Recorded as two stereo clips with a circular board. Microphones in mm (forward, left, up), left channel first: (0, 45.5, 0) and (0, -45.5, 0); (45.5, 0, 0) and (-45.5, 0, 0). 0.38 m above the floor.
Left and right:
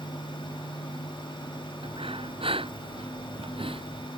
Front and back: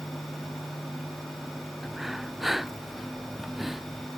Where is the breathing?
95° right.